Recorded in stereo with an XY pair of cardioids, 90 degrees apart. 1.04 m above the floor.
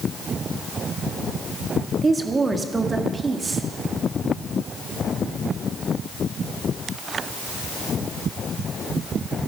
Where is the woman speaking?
35° right, 1.5 m.